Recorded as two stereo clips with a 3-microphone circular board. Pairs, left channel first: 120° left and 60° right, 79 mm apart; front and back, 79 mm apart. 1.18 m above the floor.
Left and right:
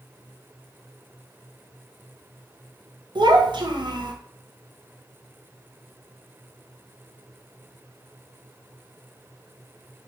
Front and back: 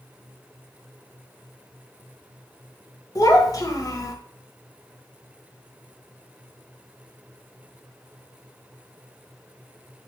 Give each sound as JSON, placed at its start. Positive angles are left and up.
{"t": 3.1, "sound": "a child speaking", "azimuth_deg": -45, "distance_m": 0.6}